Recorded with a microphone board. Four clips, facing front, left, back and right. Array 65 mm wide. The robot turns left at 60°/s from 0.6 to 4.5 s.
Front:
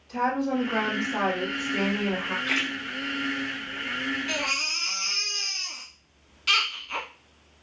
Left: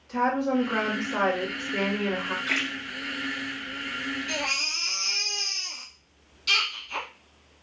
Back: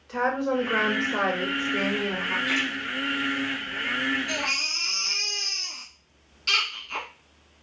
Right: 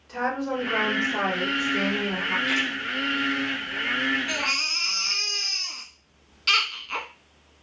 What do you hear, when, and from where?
0.1 s a woman speaking: 175° left, 2 m; by 2.4 s 70° left, 2 m
2.5 s a splash: 35° left, 1.7 m; by 2.7 s 20° left, 1.7 m
4.3 s a baby crying: 55° right, 1.1 m; by 7.1 s 70° right, 1.1 m